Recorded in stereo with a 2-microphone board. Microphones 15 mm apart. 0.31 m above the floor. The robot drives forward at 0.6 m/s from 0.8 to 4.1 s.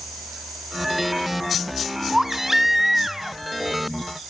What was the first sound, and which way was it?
A baby crying, 20° right (ahead or behind).